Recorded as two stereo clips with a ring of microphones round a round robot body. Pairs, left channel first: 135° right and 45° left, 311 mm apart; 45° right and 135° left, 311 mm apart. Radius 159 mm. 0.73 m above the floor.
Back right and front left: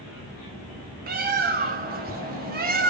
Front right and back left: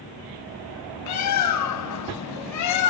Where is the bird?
15° right, 1.1 m.